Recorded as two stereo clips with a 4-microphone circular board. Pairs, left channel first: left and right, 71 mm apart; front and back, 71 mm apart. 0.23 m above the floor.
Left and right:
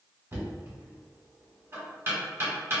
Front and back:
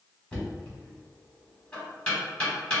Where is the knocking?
65° right, 1.6 m.